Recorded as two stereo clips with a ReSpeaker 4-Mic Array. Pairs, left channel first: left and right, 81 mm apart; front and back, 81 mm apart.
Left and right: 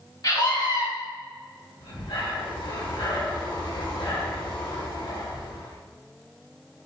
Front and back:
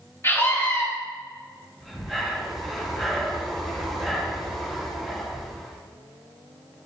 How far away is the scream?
About 3 m.